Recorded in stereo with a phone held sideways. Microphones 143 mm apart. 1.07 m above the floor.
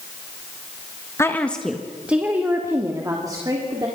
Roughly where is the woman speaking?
Centre.